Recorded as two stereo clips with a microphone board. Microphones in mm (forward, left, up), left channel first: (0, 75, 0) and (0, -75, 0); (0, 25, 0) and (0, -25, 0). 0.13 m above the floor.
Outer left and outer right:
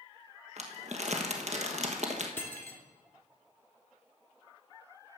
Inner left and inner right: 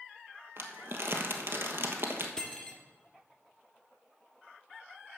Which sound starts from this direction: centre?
Cutlery clinking, at 2.4 s.